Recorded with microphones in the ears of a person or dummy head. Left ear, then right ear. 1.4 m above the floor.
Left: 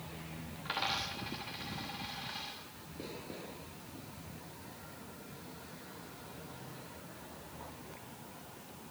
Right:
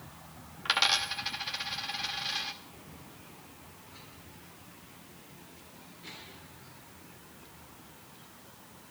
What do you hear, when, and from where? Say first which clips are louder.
0.7 s a dropped coin: right 9 dB; 40° right (ahead or behind), 1.0 m